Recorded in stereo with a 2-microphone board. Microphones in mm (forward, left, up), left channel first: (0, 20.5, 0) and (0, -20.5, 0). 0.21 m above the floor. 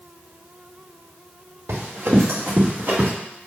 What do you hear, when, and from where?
1.7 s running footsteps: 75° right (ahead or behind), 2.0 m; by 3.1 s 45° right (ahead or behind), 3 m